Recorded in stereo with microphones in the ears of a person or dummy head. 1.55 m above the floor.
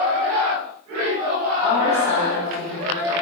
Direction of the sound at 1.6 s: 50° left (ahead or behind).